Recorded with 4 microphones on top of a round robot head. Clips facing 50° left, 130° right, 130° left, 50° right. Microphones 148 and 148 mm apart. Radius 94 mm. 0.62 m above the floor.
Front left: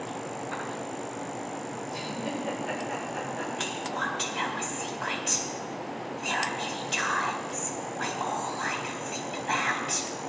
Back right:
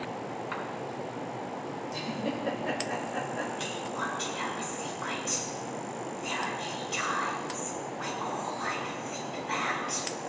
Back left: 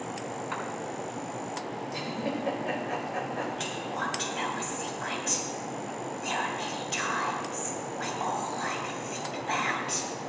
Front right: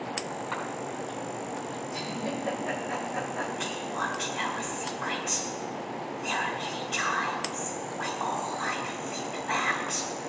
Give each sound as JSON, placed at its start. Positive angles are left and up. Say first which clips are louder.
{"t": 0.5, "sound": "a cough", "louder": "front left 1 dB, front right 2 dB", "azimuth_deg": -155, "distance_m": 6.5}
{"t": 1.9, "sound": "a giggle", "louder": "back right 1 dB, back left 1 dB", "azimuth_deg": -165, "distance_m": 4.0}
{"t": 3.6, "sound": "whispering", "louder": "front left 2 dB, front right 1 dB", "azimuth_deg": 75, "distance_m": 4.0}